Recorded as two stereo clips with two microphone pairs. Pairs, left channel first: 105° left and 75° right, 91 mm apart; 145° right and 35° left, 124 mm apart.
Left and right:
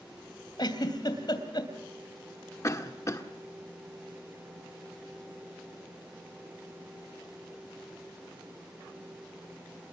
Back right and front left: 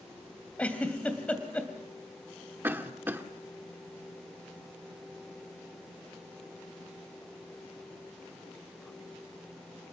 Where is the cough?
95° left, 1.4 m.